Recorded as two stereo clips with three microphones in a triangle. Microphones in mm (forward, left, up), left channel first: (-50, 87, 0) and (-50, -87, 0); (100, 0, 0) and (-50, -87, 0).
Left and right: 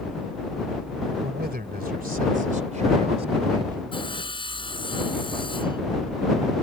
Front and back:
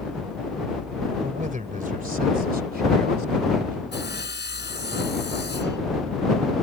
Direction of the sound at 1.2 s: 110° right.